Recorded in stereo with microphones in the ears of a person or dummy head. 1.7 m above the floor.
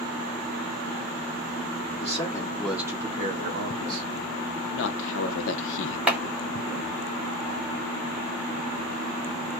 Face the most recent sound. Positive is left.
turn(degrees=-5)  # may be behind; listen again after turning